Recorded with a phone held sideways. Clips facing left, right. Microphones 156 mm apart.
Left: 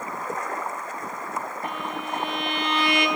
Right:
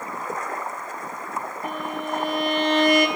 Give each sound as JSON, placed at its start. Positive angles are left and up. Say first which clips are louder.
{"t": 1.6, "sound": "a violin", "louder": "right 2 dB", "side_deg": -40, "distance_m": 1.5}